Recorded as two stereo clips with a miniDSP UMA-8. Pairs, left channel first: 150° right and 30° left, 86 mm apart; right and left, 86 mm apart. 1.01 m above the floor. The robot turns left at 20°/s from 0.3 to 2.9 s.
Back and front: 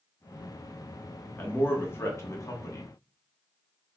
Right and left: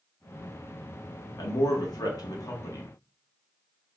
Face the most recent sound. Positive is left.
turn(degrees=-120)